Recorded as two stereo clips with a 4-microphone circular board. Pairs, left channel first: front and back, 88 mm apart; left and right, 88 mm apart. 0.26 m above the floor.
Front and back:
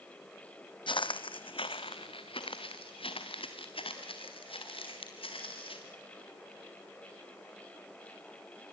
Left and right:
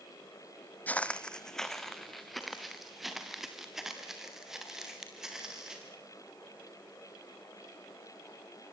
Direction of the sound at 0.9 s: 20° left.